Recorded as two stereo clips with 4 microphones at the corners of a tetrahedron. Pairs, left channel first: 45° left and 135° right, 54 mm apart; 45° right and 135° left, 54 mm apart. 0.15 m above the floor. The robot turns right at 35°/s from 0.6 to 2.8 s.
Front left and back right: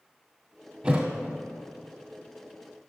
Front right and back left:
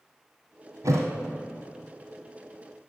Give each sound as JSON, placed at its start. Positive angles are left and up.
{"t": 0.8, "sound": "a thud", "azimuth_deg": 150, "distance_m": 1.7}